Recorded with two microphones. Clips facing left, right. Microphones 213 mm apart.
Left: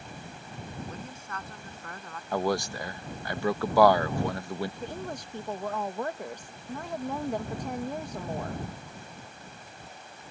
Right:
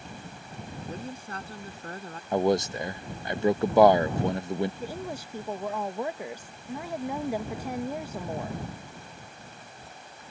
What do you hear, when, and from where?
0.9 s a woman speaking: 35° right (ahead or behind)
2.3 s a man speaking: 20° right (ahead or behind)
4.8 s a woman speaking: 10° right (ahead or behind)